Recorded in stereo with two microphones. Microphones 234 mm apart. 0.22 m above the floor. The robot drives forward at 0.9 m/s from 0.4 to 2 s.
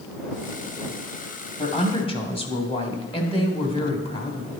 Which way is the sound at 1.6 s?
25° left (ahead or behind).